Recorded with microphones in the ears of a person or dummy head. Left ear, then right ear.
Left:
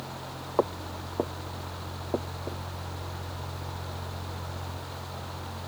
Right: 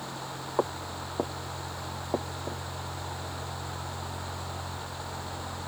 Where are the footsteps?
Centre (ahead or behind); by 2.6 s 20° right (ahead or behind).